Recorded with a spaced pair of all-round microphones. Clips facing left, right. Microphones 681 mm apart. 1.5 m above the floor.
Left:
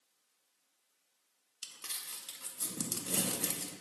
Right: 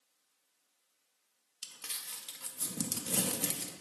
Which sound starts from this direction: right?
Crumpling, at 1.6 s.